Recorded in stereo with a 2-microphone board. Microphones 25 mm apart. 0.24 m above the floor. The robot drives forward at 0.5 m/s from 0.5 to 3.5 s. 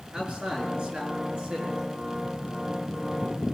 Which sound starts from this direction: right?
A man speaking, at 0.1 s.